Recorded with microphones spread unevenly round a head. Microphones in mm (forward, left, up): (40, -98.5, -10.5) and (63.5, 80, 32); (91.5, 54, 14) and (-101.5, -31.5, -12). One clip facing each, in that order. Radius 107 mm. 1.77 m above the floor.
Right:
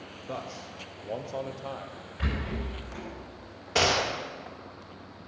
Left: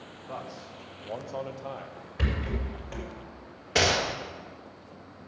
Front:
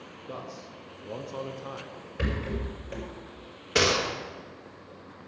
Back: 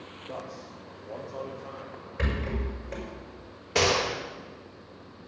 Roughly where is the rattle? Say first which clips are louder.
Left 1 dB, even; left.